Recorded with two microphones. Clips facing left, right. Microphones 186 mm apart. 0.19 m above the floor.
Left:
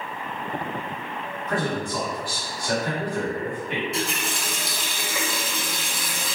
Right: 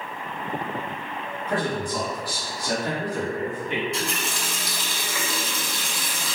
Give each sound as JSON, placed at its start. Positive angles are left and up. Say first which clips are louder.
{"t": 1.5, "sound": "a man speaking", "louder": "even", "side_deg": -30, "distance_m": 1.7}
{"t": 3.9, "sound": "a running tap", "louder": "left 1 dB", "side_deg": 5, "distance_m": 1.1}